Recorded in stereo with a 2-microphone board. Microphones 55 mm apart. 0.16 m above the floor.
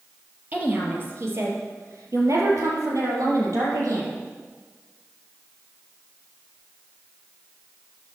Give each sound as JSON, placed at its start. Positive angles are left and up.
{"t": 0.5, "sound": "a woman speaking", "side_deg": -30, "distance_m": 4.0}